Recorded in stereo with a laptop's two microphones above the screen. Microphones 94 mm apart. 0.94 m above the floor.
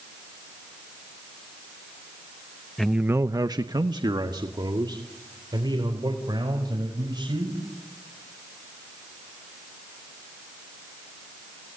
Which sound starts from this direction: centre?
A man speaking, at 2.8 s.